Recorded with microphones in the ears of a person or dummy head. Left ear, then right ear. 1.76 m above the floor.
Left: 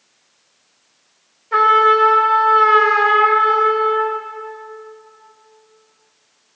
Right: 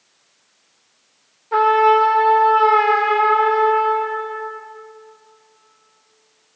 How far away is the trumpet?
About 1.7 m.